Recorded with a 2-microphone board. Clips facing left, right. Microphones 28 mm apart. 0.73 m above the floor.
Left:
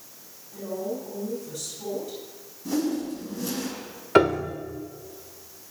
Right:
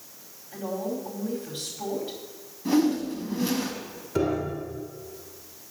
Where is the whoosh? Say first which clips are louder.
Right 4 dB; 40° right (ahead or behind), 4.5 m.